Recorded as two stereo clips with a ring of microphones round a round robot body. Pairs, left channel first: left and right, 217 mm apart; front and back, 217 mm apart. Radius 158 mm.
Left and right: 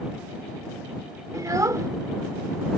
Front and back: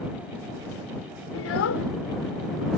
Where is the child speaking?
15° right.